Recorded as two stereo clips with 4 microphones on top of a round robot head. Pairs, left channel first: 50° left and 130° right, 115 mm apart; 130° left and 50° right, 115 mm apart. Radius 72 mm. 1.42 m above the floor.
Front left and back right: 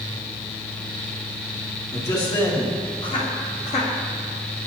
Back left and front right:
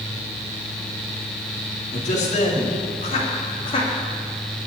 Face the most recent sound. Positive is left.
turn(degrees=85)